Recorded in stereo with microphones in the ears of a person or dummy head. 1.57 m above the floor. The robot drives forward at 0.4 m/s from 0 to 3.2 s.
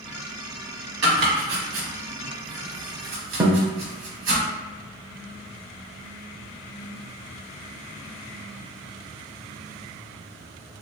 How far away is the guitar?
About 0.6 m.